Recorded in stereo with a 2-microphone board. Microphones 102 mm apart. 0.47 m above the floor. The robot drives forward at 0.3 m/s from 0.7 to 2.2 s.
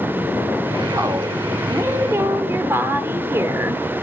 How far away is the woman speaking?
About 1.3 m.